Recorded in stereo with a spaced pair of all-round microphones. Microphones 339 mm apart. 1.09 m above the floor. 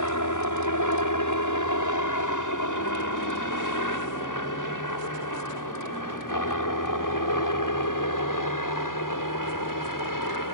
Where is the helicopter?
60° left (ahead or behind); by 10.6 s 70° left (ahead or behind).